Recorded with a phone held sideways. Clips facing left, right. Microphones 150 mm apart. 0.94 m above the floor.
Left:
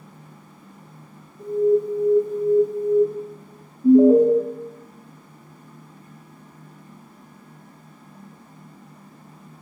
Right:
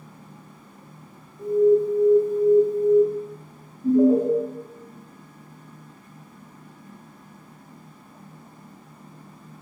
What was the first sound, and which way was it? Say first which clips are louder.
An alarm: right 1 dB; 5° right (ahead or behind).